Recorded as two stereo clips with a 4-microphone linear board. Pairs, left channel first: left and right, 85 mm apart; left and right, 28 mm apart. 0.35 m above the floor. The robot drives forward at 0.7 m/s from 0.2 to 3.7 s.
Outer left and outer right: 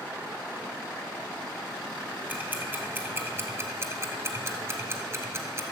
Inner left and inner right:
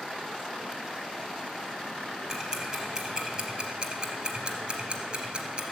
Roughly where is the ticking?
Centre.